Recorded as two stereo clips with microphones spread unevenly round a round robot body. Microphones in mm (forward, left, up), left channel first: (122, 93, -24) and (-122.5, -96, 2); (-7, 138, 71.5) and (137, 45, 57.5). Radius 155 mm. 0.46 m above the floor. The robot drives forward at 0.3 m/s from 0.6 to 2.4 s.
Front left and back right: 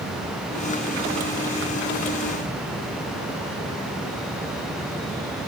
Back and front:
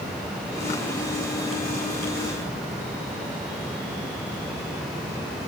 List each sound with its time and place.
Only background noise.